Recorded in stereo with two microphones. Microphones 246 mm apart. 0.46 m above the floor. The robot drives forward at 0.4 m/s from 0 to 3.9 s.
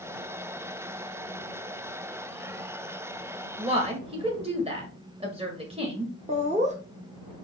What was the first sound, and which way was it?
A woman speaking, 25° right (ahead or behind).